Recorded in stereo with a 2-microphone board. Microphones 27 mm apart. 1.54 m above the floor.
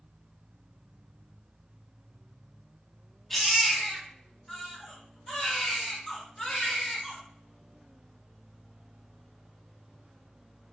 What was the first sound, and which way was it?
A baby crying, 5° left (ahead or behind).